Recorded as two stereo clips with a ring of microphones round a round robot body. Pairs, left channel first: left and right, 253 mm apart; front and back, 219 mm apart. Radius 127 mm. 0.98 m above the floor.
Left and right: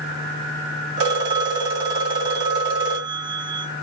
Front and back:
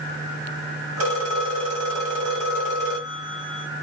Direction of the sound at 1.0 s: 115° right.